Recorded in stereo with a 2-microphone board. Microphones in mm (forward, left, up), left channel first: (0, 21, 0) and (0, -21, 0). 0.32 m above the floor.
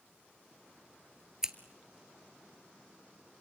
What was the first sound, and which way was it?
Scissors, 15° right (ahead or behind).